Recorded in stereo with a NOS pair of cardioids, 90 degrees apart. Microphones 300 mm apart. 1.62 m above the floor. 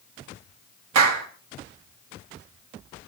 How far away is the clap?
About 2.0 m.